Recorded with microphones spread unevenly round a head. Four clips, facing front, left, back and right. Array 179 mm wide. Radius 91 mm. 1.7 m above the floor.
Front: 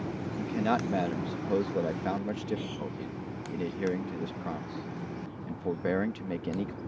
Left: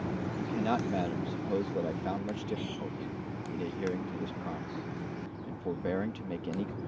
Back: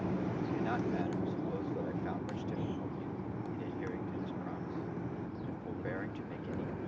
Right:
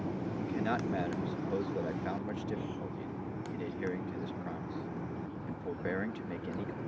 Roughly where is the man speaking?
Ahead.